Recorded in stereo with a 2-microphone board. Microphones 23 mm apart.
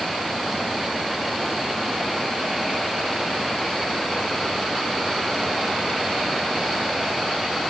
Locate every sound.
Only background noise.